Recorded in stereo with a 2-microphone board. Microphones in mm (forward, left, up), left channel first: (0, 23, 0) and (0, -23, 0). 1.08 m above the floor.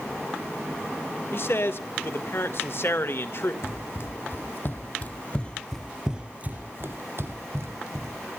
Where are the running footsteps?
55° left (ahead or behind), 2.5 m; by 8.1 s 65° right (ahead or behind), 2.5 m.